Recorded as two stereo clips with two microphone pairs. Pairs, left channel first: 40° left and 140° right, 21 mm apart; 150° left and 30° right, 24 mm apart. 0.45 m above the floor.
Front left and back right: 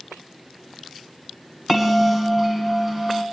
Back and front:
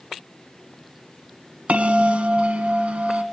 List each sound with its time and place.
1.7 s a bell: 55° right, 1.3 m